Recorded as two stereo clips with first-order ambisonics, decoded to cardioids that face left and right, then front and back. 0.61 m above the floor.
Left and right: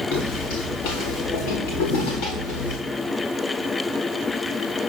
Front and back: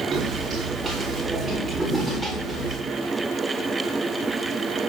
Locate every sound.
0.1 s footsteps: 110° left, 3.5 m; by 2.8 s 80° left, 3.5 m